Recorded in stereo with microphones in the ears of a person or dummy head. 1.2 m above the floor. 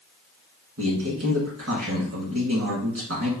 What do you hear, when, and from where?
0.8 s a man speaking: 75° right (ahead or behind), 2.5 m